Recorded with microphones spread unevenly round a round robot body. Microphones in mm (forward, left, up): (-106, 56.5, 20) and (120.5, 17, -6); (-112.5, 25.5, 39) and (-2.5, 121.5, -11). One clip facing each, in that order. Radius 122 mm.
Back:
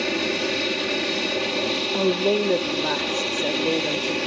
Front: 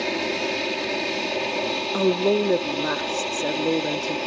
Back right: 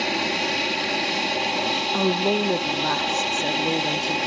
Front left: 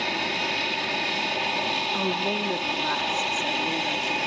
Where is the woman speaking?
80° right.